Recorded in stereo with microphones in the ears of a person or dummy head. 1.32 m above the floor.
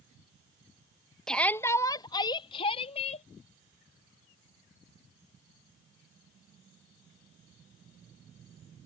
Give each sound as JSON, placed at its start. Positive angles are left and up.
{"t": 1.3, "sound": "a shout", "side_deg": 5}